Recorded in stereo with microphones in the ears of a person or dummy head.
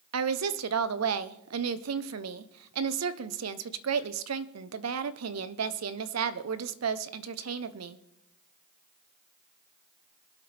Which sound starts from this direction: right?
A woman speaking, at 0.1 s.